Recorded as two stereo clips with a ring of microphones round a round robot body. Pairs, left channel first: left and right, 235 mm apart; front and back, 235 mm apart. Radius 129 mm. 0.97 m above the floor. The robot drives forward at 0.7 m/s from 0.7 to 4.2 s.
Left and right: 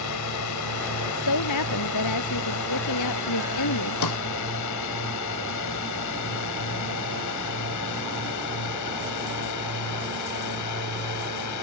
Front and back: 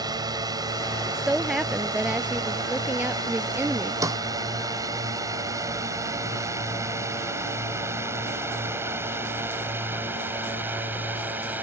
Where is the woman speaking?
90° left; by 3.9 s 100° left.